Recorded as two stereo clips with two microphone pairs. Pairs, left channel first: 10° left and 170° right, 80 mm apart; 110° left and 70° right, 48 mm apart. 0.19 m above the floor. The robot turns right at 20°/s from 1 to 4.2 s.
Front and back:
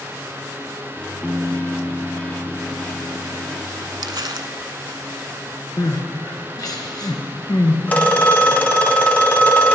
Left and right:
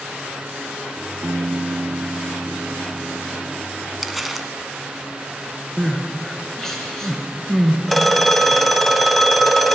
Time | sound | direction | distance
1.2 | a piano | 90° right | 0.5 m
4.0 | crumpling | 165° right | 0.5 m
5.8 | crying | 30° left | 1.4 m
7.9 | a phone ringing | 30° left | 0.6 m